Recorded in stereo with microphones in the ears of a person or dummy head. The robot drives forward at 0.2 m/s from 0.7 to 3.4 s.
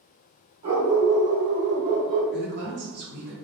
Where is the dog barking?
30° right (ahead or behind), 1.7 m; by 2.2 s 35° right (ahead or behind), 1.5 m.